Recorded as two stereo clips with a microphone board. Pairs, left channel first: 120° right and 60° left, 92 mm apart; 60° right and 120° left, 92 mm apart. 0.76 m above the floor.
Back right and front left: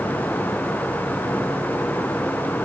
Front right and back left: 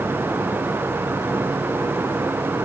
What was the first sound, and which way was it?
Only background noise.